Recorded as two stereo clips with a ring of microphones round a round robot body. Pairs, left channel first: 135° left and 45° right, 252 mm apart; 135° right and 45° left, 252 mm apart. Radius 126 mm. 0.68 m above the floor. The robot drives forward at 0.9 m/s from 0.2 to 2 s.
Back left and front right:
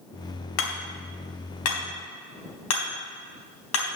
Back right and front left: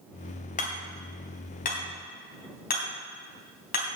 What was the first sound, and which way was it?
Hammering, 165° left.